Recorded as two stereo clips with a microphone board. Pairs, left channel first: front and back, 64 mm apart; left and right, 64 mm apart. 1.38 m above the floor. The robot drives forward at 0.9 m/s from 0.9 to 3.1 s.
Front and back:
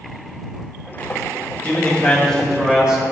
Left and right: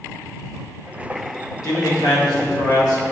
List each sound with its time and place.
1.6 s a man speaking: 60° left, 1.7 m; by 3.0 s 105° left, 1.6 m